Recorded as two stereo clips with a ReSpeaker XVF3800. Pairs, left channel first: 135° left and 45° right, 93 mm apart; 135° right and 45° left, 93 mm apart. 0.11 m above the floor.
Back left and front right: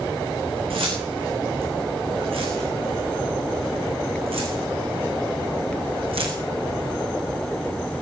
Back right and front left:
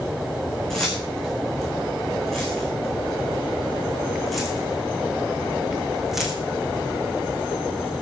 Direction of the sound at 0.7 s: 50° right.